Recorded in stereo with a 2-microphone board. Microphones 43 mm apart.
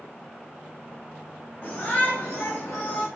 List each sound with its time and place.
1.6 s a shout: 35° left (ahead or behind), 3 m; by 3.1 s 15° left (ahead or behind), 2.5 m